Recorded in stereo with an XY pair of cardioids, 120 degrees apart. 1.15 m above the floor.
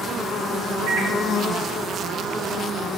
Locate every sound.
0.9 s a microwave: 65° right, 1.1 m